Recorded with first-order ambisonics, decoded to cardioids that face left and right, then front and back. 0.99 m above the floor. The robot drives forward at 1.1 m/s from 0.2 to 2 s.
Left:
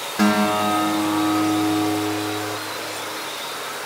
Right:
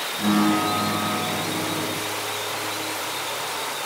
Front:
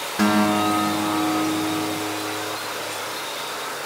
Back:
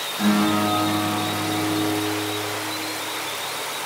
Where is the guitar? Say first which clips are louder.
Left 3 dB, front 2 dB; 45° left, 3.5 m; by 2.6 s 80° left, 2.5 m.